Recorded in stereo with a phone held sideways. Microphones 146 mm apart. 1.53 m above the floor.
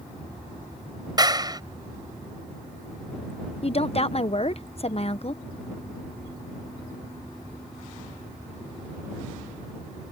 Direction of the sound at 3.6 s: 45° left (ahead or behind).